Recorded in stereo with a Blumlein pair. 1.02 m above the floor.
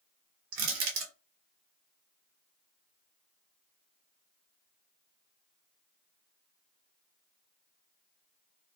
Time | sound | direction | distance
0.5 | crushing | 40° right | 1.2 m